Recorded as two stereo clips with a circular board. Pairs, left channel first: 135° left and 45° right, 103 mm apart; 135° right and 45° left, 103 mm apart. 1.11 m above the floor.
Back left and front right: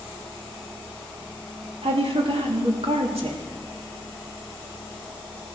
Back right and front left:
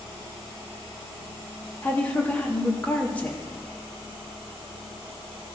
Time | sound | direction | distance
1.8 | a woman speaking | 60° right | 2.5 m